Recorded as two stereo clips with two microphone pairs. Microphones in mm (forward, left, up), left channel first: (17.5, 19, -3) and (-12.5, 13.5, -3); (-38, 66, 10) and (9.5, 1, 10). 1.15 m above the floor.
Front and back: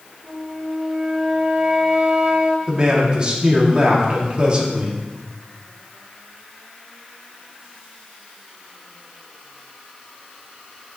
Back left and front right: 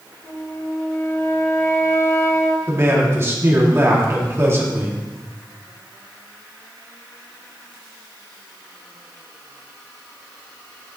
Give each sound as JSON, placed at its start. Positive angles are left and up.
{"t": 0.2, "sound": "a flute", "azimuth_deg": 165, "distance_m": 1.2}
{"t": 2.7, "sound": "a man speaking", "azimuth_deg": -110, "distance_m": 2.0}